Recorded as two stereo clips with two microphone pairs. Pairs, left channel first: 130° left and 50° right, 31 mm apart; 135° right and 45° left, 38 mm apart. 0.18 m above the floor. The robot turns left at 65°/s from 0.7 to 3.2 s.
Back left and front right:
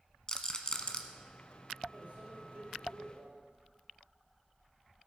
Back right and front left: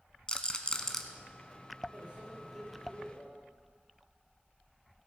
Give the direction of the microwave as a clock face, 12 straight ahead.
12 o'clock.